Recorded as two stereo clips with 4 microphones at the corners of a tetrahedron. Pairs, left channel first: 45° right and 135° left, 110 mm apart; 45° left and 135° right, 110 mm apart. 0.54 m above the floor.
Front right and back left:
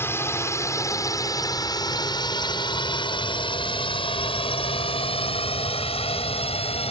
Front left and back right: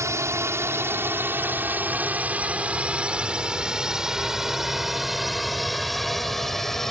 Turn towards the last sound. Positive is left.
turn(degrees=-40)